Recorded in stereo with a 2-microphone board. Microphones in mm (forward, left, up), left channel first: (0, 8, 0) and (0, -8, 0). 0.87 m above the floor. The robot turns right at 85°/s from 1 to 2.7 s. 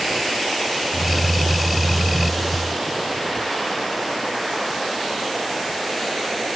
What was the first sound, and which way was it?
Only background noise.